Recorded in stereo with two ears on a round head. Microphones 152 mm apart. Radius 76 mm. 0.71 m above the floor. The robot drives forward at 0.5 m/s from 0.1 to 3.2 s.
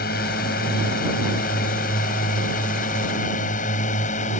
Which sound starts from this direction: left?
A drone, at 0.0 s.